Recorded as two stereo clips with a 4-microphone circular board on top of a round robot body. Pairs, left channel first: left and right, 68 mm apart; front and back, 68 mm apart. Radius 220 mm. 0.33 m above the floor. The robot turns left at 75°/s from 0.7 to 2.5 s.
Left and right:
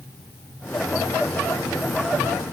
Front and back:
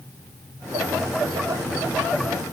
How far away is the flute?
I don't hear a flute.